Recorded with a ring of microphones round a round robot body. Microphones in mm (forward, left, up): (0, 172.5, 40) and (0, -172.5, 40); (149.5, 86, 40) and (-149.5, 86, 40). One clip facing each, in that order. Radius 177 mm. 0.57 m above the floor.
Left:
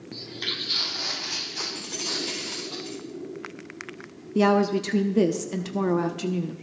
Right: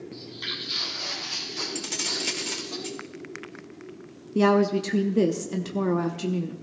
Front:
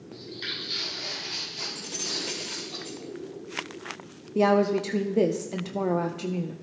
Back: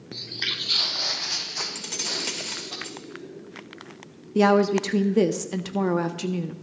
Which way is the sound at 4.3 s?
Straight behind.